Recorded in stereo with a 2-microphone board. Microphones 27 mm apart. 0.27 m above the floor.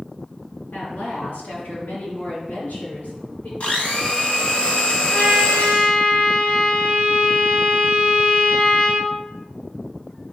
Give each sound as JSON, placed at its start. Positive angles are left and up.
{"t": 0.7, "sound": "a woman speaking", "side_deg": 70, "distance_m": 3.5}
{"t": 3.6, "sound": "a blender", "side_deg": 50, "distance_m": 1.8}
{"t": 5.1, "sound": "a trumpet", "side_deg": 65, "distance_m": 3.5}